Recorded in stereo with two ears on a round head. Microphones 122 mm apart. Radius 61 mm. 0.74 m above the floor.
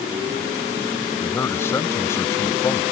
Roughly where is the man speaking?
Centre.